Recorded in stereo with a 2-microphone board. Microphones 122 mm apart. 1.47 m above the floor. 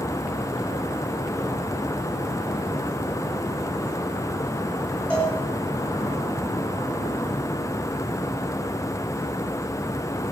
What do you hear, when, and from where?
5.1 s a cowbell: 10° left (ahead or behind), 10 m